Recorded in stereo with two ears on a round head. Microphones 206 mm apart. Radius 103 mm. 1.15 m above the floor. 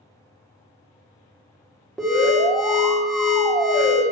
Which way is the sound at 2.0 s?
Centre (ahead or behind).